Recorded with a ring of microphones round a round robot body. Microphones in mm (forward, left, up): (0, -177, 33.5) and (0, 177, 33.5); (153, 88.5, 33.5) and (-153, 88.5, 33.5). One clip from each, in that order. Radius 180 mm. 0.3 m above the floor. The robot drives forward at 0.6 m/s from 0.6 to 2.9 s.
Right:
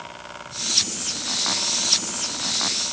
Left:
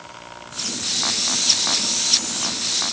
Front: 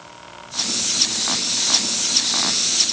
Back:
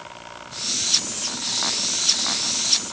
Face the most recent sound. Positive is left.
No sound to turn to.